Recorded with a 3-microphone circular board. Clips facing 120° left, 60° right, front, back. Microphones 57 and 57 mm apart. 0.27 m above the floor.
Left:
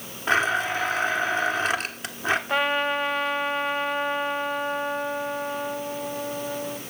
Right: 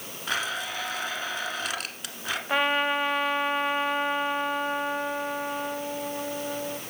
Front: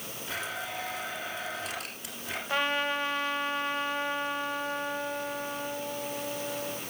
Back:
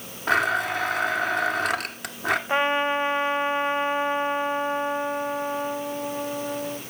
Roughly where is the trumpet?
Behind right.